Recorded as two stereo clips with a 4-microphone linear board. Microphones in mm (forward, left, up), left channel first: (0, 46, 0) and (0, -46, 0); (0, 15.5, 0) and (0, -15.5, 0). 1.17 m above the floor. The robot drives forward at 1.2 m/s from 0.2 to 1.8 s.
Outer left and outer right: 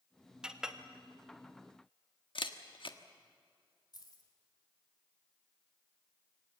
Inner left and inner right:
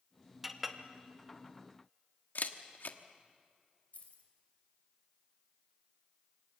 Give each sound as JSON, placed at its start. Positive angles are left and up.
{"t": 0.4, "sound": "a clink", "side_deg": -10, "distance_m": 1.0}
{"t": 2.4, "sound": "a camera shutter", "side_deg": 65, "distance_m": 1.2}
{"t": 3.9, "sound": "keys jangling", "side_deg": 50, "distance_m": 3.0}